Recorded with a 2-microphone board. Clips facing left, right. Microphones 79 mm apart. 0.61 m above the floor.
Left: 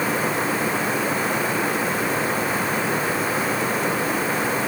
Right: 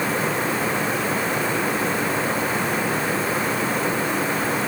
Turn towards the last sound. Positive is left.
No sound to turn to.